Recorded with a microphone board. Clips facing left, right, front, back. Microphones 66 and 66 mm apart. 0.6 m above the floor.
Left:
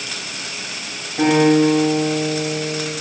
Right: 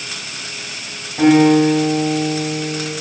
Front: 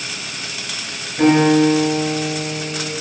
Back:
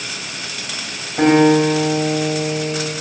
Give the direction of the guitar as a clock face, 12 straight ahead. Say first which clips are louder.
Right 3 dB, back 1 dB; 6 o'clock.